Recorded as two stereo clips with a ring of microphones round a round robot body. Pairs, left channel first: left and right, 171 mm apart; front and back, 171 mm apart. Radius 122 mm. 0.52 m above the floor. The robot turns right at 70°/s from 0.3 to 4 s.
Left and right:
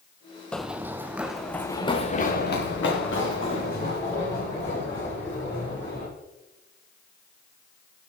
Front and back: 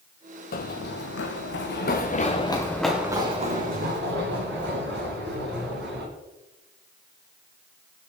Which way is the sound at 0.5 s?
5° left.